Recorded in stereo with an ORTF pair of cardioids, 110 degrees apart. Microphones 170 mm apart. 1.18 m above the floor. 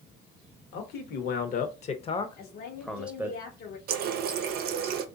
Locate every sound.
0.7 s a man speaking: 70° left, 1.3 m; by 3.4 s 15° right, 1.0 m
2.4 s a woman speaking: 65° left, 1.1 m
3.9 s a running tap: 65° right, 0.6 m